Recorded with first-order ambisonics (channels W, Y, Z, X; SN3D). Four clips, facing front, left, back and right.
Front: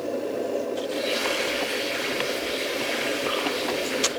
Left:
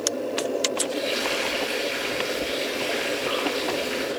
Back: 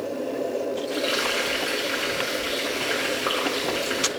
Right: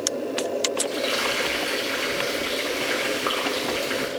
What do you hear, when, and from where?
0.9 s frying: 120° right, 6 m